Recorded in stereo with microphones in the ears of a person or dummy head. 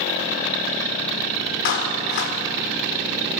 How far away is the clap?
About 4 m.